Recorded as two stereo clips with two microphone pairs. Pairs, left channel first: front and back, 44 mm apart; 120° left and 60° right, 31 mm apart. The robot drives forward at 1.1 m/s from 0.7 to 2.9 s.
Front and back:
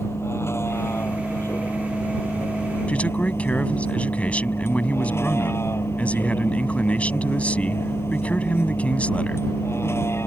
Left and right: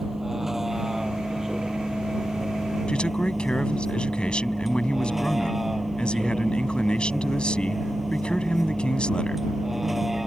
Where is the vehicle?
15° left; by 10.3 s 20° left.